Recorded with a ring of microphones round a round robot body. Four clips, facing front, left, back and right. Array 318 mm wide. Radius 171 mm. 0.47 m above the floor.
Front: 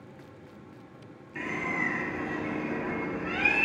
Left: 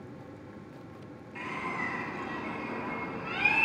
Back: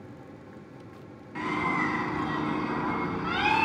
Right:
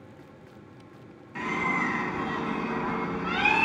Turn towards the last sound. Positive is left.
turn(degrees=-140)